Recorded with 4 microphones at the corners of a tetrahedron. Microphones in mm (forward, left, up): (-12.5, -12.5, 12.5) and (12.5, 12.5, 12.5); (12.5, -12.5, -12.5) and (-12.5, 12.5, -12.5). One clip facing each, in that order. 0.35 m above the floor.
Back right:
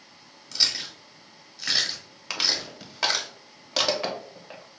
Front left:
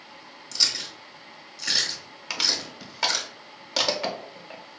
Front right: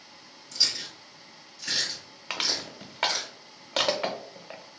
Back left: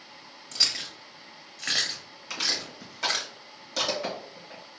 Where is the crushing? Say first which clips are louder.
Even, even; 50° right, 0.7 m.